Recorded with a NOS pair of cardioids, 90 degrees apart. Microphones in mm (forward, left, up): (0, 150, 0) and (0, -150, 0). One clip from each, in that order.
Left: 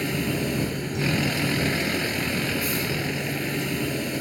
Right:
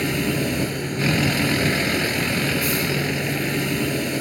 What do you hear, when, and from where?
0.0 s a vehicle: 30° right